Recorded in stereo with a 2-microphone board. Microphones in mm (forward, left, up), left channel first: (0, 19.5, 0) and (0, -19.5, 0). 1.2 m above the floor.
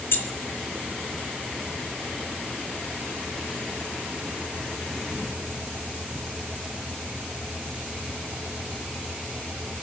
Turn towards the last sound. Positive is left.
turn(degrees=65)  # may be behind; listen again after turning